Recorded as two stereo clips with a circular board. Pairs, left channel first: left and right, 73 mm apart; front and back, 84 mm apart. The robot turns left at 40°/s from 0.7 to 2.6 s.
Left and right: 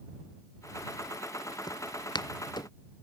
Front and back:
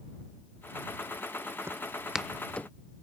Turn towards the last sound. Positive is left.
turn(degrees=75)